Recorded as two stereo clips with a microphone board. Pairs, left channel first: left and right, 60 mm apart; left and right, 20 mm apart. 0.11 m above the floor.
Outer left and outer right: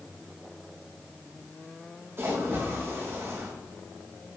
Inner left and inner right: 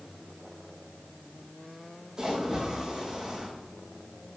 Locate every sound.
2.2 s a splash: 45° right (ahead or behind), 2.5 m